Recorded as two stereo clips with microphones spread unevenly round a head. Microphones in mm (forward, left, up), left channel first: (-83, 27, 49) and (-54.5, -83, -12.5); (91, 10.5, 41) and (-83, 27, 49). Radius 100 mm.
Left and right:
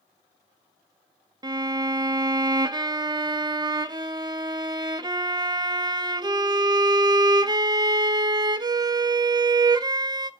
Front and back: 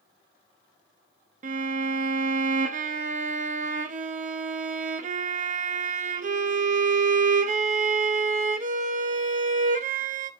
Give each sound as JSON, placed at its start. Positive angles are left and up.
{"t": 1.4, "sound": "a violin", "azimuth_deg": -135, "distance_m": 0.6}